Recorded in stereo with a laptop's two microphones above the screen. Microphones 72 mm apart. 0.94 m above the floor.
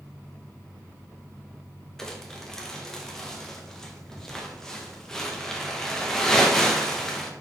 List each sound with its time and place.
2.0 s crumpling: 5° left (ahead or behind), 1.0 m